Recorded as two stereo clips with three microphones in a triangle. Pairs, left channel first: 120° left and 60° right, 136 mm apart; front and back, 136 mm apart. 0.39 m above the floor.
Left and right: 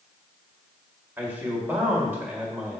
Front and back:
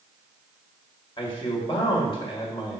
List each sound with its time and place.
1.2 s a man speaking: 5° left, 1.7 m